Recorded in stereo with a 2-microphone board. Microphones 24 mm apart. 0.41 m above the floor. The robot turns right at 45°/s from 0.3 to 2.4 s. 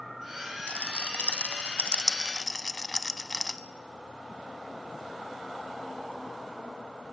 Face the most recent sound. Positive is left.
turn(degrees=20)  # may be behind; listen again after turning